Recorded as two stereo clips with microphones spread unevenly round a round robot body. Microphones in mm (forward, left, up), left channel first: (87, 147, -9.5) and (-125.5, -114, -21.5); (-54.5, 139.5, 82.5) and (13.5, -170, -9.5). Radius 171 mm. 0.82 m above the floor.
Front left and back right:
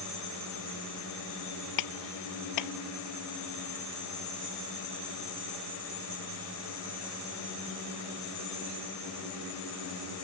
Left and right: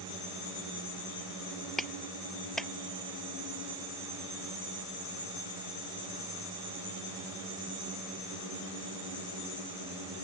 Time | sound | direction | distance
1.8 | a clap | 15° left | ?